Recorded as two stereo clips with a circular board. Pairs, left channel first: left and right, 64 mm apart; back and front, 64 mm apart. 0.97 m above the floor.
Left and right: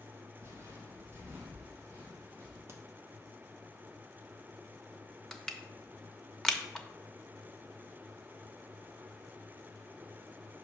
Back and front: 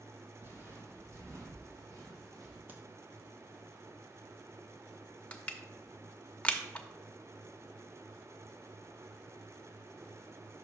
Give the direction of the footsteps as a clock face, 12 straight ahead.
2 o'clock.